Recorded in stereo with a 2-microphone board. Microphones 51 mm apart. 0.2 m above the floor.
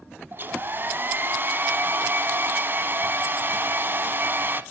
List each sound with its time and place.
0.3 s a hair dryer: 45° right (ahead or behind), 0.8 m